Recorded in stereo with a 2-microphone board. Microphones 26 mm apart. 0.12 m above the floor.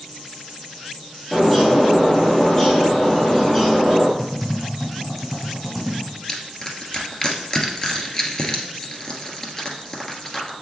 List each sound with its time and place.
1.3 s a bird: 20° left (ahead or behind), 2.5 m
4.2 s typing on a keyboard: centre (ahead or behind), 3 m
6.3 s crushing: 25° left (ahead or behind), 1.4 m